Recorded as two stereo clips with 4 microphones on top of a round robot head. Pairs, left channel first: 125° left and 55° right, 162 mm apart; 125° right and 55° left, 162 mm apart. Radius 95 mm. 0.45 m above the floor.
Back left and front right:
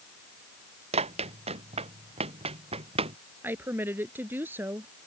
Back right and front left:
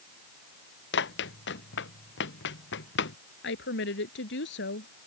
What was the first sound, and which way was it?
Running footsteps, 110° right.